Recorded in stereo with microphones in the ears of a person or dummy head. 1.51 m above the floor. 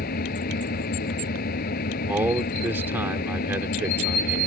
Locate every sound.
0.0 s an engine running: 50° left (ahead or behind)
2.1 s a man speaking: 10° right (ahead or behind)